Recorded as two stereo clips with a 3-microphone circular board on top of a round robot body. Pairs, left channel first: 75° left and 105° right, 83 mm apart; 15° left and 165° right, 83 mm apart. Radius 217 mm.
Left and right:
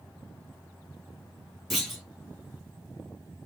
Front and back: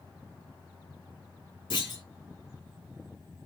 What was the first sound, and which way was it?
A clunk, 15° right.